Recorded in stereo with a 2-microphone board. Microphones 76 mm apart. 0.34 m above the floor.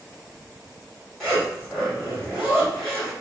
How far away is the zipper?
About 1.5 m.